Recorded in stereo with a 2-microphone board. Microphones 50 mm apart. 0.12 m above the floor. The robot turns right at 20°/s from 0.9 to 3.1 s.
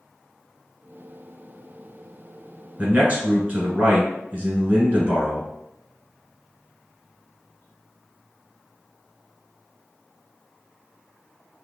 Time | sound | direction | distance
2.8 | a man speaking | 30° right (ahead or behind) | 1.3 m